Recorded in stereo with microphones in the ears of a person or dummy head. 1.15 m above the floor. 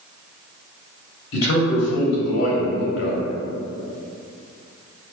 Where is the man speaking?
70° left (ahead or behind), 2.5 m.